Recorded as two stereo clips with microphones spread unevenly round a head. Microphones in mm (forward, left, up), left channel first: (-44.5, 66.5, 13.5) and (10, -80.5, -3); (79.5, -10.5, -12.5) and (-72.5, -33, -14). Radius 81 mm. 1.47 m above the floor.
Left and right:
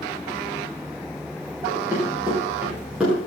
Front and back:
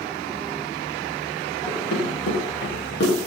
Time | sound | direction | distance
1.7 | running footsteps | 10° left | 9.5 m